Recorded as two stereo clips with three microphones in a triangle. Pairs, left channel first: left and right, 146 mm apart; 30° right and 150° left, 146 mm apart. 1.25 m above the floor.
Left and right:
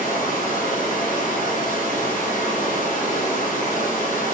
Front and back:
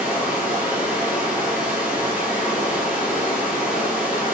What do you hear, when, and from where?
0.0 s running water: 70° left, 3.5 m